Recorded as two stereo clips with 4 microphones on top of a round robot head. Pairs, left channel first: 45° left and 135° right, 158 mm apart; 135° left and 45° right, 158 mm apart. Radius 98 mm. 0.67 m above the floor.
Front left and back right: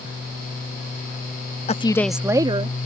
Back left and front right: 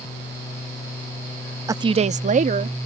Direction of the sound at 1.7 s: 20° left.